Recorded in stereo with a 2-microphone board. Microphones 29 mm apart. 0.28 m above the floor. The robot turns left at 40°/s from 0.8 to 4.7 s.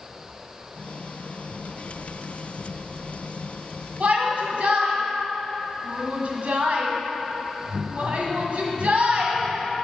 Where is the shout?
55° right (ahead or behind), 1.6 m.